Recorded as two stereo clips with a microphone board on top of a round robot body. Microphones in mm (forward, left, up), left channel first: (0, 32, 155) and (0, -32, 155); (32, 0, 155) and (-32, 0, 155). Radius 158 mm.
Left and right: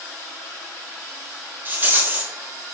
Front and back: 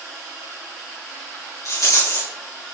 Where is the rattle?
35° right, 3 m.